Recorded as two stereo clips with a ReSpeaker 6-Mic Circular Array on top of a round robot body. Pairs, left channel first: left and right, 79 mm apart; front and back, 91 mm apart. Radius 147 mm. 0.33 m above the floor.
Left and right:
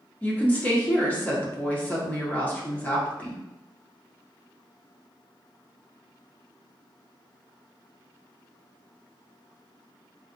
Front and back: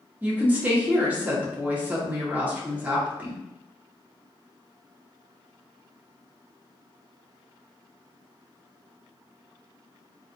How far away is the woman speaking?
About 1.0 m.